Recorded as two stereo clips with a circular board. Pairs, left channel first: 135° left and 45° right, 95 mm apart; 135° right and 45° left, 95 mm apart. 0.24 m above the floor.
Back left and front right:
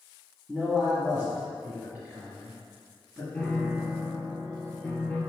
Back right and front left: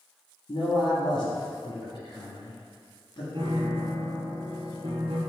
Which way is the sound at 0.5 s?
120° right.